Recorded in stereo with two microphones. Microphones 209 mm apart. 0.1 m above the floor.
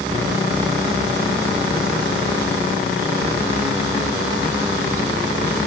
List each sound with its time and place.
Only background noise.